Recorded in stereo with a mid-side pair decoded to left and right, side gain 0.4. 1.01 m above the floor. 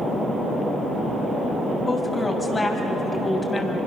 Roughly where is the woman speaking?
Ahead left.